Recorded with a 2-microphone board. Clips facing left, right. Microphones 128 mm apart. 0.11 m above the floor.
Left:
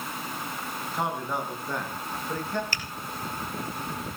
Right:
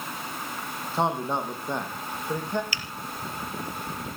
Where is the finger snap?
45° left (ahead or behind), 2.5 m.